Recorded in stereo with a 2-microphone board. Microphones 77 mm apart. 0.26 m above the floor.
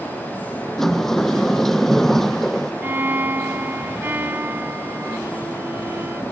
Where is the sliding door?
5° left (ahead or behind).